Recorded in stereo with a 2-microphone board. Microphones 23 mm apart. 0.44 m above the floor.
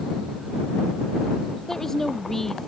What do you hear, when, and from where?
1.7 s a woman speaking: 15° left (ahead or behind)